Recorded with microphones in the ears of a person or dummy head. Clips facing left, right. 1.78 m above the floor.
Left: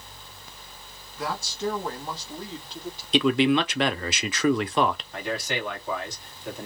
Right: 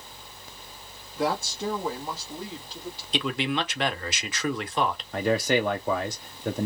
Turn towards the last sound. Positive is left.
turn(degrees=-40)  # may be behind; listen again after turning